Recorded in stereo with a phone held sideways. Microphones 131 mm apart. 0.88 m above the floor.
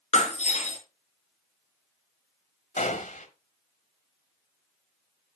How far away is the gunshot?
About 1.9 m.